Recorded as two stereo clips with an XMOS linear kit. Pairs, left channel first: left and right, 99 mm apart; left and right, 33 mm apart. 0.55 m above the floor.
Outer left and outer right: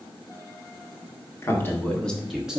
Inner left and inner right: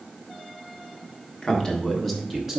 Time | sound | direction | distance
1.4 | a man speaking | 30° left (ahead or behind) | 1.2 m